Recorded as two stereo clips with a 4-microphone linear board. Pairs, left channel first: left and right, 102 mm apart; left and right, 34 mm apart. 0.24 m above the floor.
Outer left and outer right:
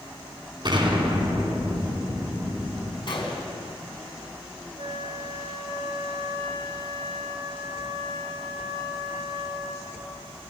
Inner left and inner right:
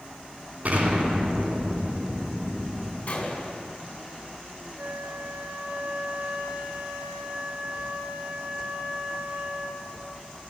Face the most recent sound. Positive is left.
turn(degrees=-65)  # may be behind; listen again after turning